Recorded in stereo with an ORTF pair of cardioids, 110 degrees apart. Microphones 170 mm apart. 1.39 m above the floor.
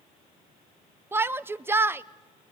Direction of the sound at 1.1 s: 15° right.